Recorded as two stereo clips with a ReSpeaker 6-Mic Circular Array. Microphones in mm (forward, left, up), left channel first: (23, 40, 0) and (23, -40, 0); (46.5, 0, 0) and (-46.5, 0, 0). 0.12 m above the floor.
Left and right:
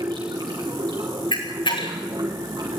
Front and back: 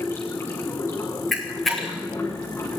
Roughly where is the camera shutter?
Left.